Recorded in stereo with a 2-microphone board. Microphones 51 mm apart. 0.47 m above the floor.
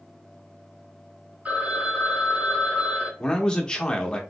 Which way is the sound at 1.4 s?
25° right (ahead or behind).